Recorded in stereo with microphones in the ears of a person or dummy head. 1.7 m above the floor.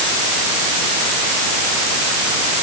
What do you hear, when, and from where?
Only background noise.